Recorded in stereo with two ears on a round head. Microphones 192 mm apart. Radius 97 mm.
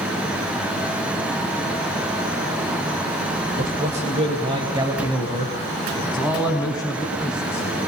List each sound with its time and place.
3.6 s a man speaking: 40° right (ahead or behind), 2.5 m; by 7.7 s centre (ahead or behind), 6.5 m